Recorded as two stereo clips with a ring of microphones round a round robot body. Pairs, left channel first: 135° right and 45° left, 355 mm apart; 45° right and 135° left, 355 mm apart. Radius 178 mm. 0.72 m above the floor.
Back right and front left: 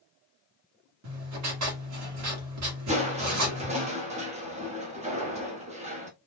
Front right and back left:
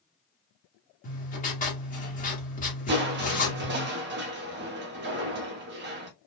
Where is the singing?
No singing in this recording.